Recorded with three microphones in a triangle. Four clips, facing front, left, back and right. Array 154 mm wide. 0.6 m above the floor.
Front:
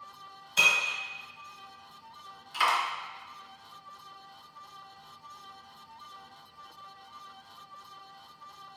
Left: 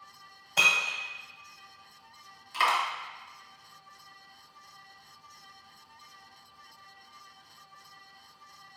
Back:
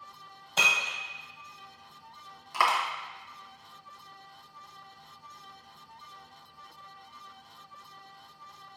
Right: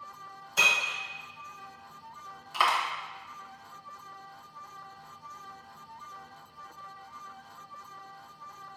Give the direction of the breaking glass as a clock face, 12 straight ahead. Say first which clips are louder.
Even, even; 7 o'clock.